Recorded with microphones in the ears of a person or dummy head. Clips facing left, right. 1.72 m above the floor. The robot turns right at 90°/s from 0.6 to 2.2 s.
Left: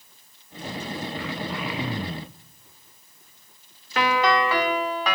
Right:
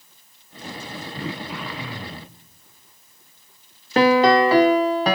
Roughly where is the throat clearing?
Ahead right.